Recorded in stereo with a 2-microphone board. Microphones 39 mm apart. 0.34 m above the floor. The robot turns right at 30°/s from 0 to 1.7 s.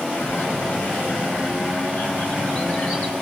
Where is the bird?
95° left, 3 m; by 3.1 s 140° left, 3 m.